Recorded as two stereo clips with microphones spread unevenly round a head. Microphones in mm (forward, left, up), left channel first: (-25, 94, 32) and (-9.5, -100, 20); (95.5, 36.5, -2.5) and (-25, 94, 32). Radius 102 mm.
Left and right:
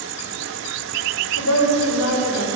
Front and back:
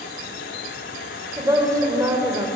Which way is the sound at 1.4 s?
90° left.